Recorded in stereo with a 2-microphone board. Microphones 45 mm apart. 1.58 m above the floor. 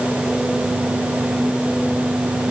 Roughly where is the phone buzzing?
No phone buzzing in this recording.